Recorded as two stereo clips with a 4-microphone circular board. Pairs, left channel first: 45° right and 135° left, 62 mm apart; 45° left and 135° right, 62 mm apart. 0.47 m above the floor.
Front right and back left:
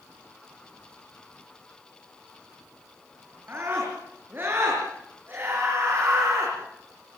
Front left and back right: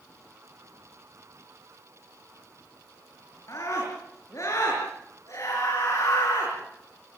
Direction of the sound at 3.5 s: 80° left.